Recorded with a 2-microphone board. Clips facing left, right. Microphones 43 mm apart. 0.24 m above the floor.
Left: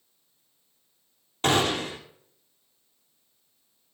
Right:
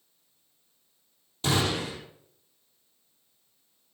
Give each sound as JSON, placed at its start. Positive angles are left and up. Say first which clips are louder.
{"t": 1.4, "sound": "a gunshot", "louder": "left 4 dB", "side_deg": 50, "distance_m": 2.5}